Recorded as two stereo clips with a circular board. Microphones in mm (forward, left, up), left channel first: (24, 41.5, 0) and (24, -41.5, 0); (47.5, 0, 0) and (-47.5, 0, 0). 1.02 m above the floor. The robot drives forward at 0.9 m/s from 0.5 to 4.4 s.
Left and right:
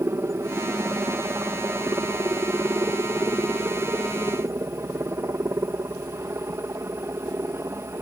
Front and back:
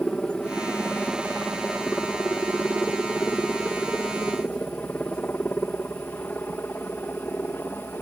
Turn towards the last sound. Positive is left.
turn(degrees=-55)